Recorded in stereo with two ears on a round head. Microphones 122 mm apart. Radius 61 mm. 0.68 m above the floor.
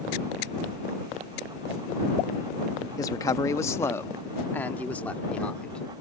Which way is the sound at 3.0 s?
25° left (ahead or behind).